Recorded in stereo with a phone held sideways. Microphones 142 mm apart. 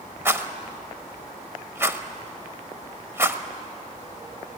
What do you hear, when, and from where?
0.2 s a rattle: 15° right (ahead or behind), 1.1 m